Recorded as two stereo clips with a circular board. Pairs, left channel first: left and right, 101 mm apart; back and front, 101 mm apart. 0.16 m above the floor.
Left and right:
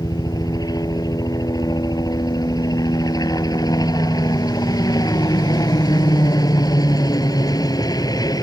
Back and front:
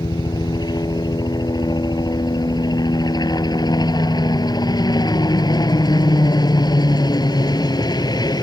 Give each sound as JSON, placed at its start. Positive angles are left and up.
{"t": 0.0, "sound": "a helicopter", "azimuth_deg": 135}